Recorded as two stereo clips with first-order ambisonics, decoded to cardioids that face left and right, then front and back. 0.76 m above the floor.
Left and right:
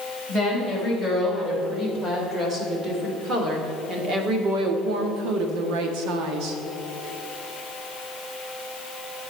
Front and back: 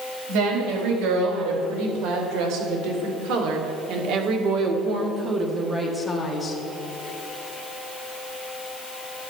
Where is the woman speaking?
170° right, 4.5 m; by 6.6 s 70° right, 1.5 m.